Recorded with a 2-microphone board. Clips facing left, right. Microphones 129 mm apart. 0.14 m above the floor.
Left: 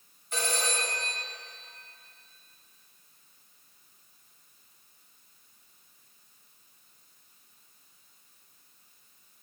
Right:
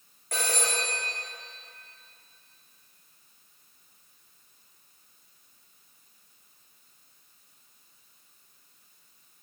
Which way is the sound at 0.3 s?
80° right.